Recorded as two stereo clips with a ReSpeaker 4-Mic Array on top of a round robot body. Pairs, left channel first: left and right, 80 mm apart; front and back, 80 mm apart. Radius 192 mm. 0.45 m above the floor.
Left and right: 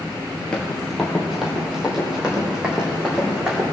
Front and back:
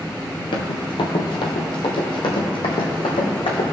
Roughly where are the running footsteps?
Ahead.